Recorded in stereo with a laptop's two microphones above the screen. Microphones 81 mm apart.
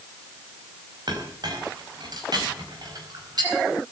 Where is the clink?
60° right (ahead or behind), 4.5 m.